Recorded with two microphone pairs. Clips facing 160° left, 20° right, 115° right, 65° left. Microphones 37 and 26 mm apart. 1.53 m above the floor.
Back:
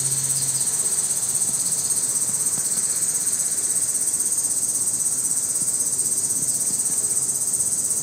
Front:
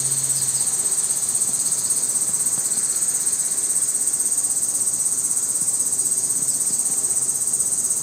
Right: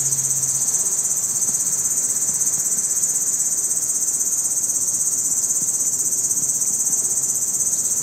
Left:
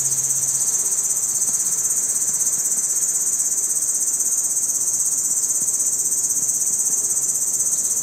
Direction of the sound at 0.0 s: 55° right.